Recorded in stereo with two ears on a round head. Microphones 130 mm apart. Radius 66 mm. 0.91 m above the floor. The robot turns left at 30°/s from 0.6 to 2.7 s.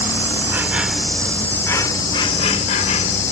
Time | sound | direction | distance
0.0 | an insect | 165° right | ?